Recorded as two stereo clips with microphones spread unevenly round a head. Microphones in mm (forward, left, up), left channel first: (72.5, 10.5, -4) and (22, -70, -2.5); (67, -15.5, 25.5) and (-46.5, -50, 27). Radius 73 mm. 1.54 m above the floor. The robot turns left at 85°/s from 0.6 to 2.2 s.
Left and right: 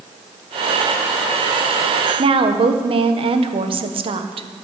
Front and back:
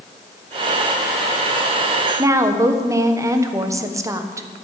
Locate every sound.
2.2 s a woman speaking: 95° right, 1.3 m; by 4.5 s 100° right, 1.3 m